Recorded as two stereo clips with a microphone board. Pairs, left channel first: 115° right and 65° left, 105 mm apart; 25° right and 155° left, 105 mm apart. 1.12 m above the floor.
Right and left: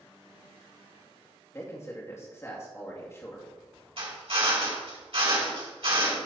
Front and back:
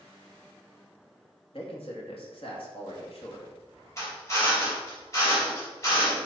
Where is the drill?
40° left, 3.5 m.